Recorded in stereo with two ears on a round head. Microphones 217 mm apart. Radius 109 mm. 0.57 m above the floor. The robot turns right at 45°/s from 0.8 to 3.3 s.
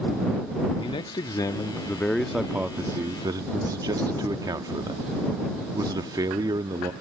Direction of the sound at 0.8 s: 20° left (ahead or behind).